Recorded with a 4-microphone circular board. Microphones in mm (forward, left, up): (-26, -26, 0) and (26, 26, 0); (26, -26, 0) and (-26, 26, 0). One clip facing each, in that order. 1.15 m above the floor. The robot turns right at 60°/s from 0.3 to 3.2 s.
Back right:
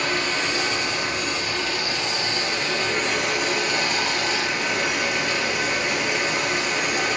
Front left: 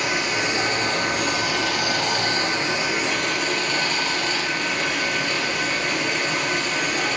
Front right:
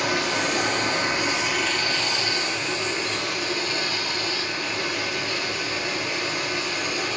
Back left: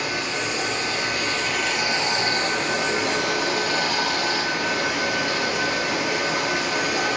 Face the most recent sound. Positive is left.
turn(degrees=140)